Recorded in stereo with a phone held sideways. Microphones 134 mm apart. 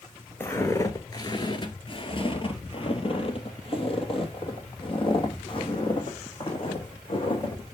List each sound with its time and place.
0.4 s footsteps: 20° left (ahead or behind), 1.1 m; by 7.6 s 40° left (ahead or behind), 4 m